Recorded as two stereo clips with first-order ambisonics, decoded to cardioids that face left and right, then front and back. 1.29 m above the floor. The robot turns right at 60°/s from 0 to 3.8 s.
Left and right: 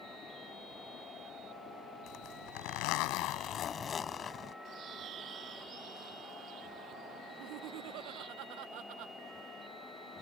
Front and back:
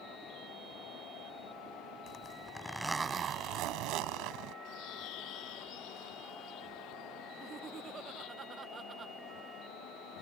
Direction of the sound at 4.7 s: 35° right.